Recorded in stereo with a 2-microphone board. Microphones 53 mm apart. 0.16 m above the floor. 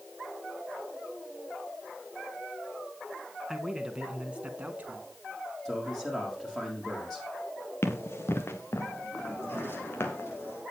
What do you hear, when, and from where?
3.5 s a man speaking: 5° right (ahead or behind), 1.9 m; by 5.1 s 35° right (ahead or behind), 2.0 m
5.7 s a man speaking: 5° left (ahead or behind), 5.5 m
7.8 s running footsteps: 50° left (ahead or behind), 2 m; by 10.3 s 45° left (ahead or behind), 3.5 m
9.3 s a sliding door: 45° left (ahead or behind), 7.5 m